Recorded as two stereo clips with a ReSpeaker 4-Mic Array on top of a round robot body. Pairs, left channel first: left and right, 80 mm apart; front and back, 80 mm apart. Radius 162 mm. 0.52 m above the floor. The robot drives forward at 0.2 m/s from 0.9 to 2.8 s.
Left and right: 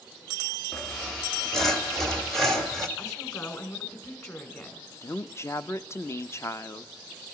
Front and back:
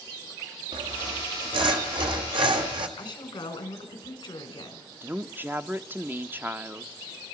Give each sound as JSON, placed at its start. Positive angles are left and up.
{"t": 0.7, "sound": "sawing", "azimuth_deg": 175, "distance_m": 1.7}
{"t": 3.0, "sound": "a woman speaking", "azimuth_deg": 35, "distance_m": 4.0}
{"t": 5.0, "sound": "a woman speaking", "azimuth_deg": 130, "distance_m": 0.8}